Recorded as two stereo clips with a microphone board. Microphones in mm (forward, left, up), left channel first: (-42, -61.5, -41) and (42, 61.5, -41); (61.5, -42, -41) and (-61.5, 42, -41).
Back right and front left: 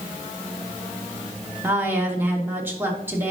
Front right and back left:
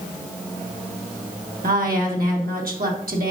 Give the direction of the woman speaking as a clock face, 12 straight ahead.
8 o'clock.